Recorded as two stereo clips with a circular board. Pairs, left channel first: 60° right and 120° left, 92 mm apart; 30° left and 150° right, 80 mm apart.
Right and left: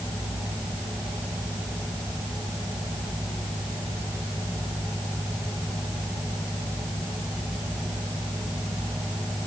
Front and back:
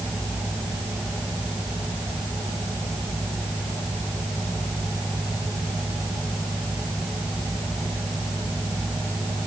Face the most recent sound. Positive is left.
No sound to turn to.